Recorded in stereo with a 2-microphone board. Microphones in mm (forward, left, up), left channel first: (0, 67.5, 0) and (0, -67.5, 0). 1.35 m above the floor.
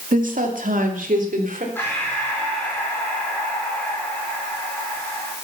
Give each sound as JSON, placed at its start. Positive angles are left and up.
{"t": 0.1, "sound": "a woman speaking", "side_deg": -80, "distance_m": 2.5}
{"t": 1.8, "sound": "breathing", "side_deg": 15, "distance_m": 5.5}